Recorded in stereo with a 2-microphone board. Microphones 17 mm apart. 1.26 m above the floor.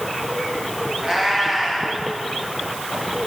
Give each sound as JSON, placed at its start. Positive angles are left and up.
{"t": 1.0, "sound": "a cat meowing", "side_deg": -30, "distance_m": 4.5}